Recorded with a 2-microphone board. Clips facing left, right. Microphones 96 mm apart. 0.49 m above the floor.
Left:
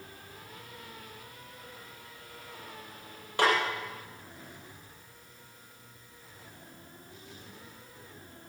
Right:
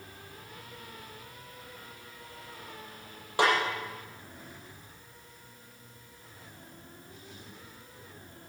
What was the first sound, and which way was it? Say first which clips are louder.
A snare drum: right 1 dB; 20° right (ahead or behind).